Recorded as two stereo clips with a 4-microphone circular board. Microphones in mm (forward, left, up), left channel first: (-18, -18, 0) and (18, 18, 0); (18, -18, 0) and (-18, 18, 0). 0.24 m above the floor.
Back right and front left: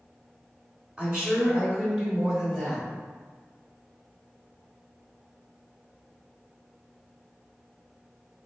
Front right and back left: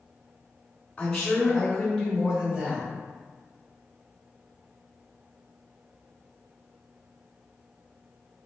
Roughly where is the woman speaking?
Ahead.